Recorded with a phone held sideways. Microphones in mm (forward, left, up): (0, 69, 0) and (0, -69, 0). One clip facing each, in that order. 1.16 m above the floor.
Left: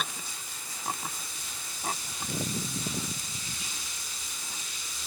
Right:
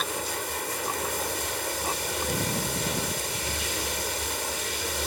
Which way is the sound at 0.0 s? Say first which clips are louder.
Right 9 dB; 75° right (ahead or behind).